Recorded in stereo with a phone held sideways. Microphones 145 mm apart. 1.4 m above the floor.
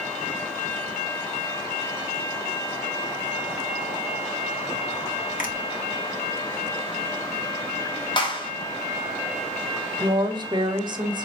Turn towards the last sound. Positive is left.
turn(degrees=-35)  # may be behind; listen again after turning